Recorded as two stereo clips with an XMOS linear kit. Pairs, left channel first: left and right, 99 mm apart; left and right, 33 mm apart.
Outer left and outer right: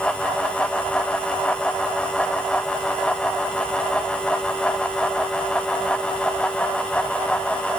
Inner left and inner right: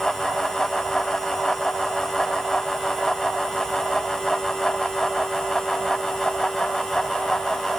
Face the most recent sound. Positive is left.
No sound to turn to.